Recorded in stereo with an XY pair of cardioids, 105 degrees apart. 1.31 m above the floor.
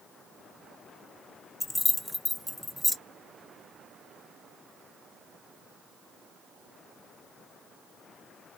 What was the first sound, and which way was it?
Keys jangling, 10° left.